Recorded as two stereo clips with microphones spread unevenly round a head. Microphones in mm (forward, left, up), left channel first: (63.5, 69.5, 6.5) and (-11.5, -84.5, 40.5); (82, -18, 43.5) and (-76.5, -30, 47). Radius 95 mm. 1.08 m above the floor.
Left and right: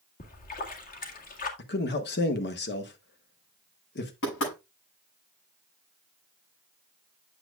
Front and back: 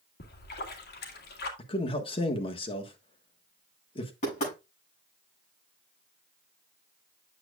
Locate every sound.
0.2 s a splash: 30° left, 1.7 m
1.6 s a man speaking: 60° left, 1.4 m
4.2 s knocking: 55° left, 7.5 m